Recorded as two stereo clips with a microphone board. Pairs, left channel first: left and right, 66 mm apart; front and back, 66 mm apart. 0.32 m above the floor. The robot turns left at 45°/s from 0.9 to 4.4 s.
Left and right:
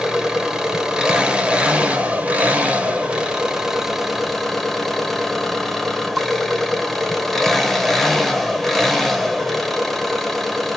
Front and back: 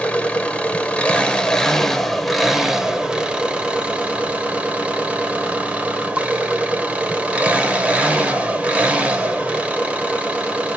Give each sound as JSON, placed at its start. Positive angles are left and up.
{"t": 0.0, "sound": "an engine running", "azimuth_deg": -30, "distance_m": 1.1}